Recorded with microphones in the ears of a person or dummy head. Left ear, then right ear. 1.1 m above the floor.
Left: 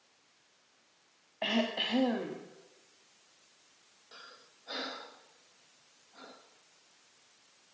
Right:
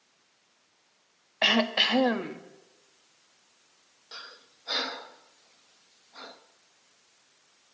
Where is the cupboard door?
No cupboard door in this recording.